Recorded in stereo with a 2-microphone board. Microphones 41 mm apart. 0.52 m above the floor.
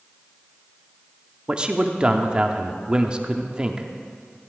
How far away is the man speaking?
About 0.7 m.